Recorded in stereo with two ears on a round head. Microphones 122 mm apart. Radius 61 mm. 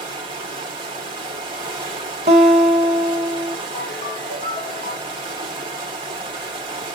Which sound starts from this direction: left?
A ringtone, at 3.8 s.